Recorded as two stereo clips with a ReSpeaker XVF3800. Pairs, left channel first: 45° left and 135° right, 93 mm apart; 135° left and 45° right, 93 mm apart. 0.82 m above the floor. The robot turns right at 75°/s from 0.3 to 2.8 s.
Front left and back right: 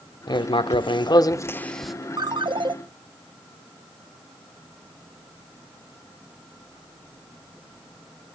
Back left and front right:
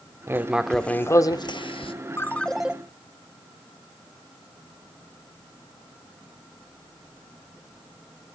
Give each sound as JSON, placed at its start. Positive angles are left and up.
{"t": 0.3, "sound": "writing", "azimuth_deg": 15, "distance_m": 0.7}
{"t": 2.2, "sound": "a ringtone", "azimuth_deg": -165, "distance_m": 0.7}